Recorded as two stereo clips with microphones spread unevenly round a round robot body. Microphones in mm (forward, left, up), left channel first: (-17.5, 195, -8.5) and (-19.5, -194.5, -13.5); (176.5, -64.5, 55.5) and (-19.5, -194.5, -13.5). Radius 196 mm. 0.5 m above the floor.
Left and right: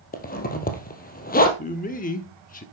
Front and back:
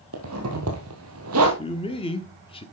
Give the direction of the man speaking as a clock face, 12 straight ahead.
8 o'clock.